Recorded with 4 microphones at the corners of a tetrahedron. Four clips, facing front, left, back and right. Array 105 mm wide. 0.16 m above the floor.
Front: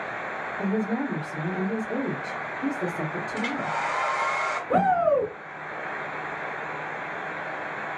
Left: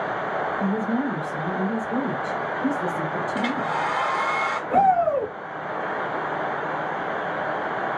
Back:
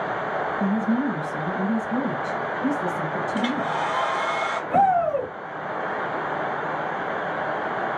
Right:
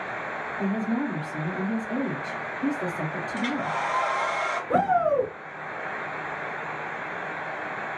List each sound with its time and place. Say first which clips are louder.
0.6 s a woman speaking: right 1 dB, back 2 dB; 10° right, 3 m
3.4 s a hair dryer: left 1 dB, back 3 dB; 125° left, 1.2 m
4.7 s a shout: left 3 dB, back 1 dB; 35° right, 2 m